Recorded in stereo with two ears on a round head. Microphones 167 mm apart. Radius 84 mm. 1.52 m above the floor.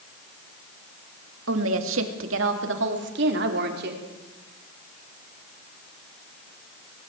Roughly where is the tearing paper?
I don't hear tearing paper.